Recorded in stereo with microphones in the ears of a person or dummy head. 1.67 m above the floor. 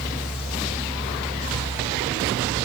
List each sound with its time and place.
Only background noise.